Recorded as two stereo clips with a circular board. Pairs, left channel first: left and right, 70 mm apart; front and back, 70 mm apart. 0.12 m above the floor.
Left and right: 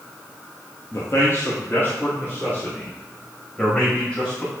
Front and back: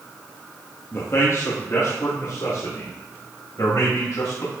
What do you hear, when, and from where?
0.9 s a man speaking: 50° left, 2.5 m; by 4.5 s 25° left, 6 m